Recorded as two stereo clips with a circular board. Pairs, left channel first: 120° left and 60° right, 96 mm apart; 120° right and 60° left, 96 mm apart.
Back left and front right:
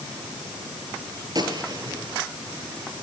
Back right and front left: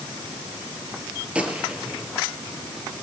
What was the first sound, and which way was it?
A gunshot, 20° right.